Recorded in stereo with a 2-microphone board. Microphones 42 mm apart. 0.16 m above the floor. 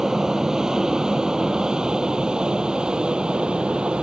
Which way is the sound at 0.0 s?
15° right (ahead or behind).